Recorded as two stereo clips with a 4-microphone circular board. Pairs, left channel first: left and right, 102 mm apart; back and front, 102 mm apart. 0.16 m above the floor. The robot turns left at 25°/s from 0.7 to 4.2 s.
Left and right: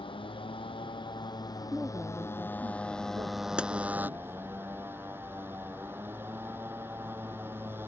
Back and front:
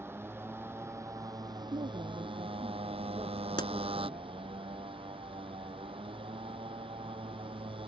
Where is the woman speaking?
10° right; by 4.4 s 75° right.